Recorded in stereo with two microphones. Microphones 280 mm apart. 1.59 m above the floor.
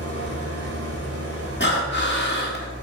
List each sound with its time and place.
0.0 s an engine running: 55° right (ahead or behind), 2.5 m
1.6 s breathing: 40° left (ahead or behind), 1.8 m